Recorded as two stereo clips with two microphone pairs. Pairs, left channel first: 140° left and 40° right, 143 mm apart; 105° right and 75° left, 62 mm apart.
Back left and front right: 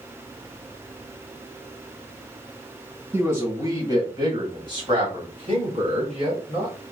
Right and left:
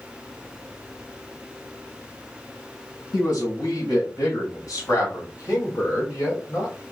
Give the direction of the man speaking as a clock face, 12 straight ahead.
4 o'clock.